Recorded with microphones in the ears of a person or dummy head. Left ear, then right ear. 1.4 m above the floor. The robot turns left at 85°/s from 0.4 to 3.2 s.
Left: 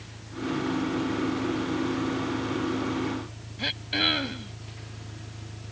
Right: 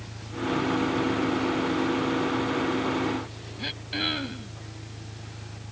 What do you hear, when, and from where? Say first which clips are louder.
0.0 s an engine running: right 3 dB; 105° right; by 5.7 s 20° left
3.6 s throat clearing: left 4 dB; 20° left (ahead or behind)